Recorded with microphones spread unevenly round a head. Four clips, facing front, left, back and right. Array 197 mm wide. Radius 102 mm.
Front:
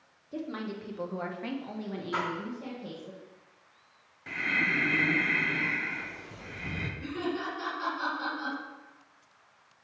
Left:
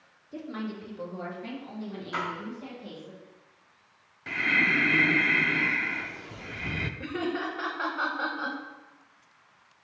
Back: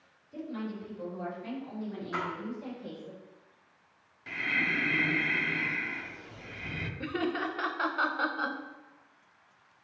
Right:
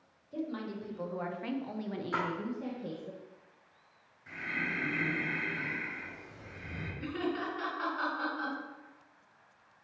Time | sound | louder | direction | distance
0.3 | a woman speaking | left 2 dB, front 1 dB | 20° left | 1.7 m
2.1 | a splash | left 1 dB, front 3 dB | 70° right | 2.5 m
4.3 | breathing | left 10 dB, front 2 dB | 80° left | 0.6 m
7.0 | laughter | left 3 dB, back 2 dB | 150° left | 0.9 m